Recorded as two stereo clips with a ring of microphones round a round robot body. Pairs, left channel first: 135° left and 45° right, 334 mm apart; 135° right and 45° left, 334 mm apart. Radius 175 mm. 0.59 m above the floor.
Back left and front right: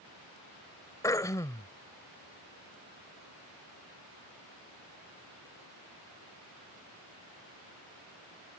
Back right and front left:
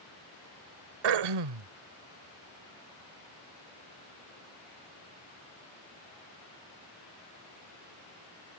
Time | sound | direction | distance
1.0 | throat clearing | 55° left | ?